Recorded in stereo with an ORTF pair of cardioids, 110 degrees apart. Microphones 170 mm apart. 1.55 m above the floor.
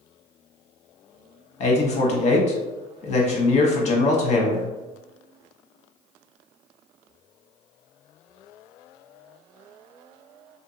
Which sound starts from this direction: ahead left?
A man speaking, at 1.6 s.